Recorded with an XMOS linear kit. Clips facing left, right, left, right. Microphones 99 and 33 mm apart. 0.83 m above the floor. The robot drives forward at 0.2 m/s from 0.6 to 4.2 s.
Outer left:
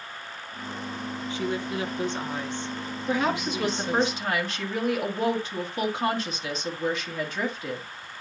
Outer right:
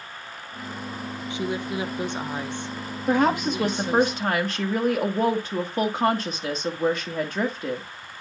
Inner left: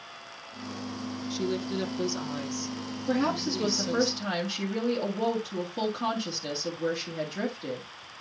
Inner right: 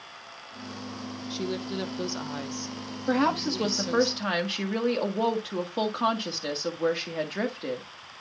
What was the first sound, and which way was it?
A woman speaking, 20° right (ahead or behind).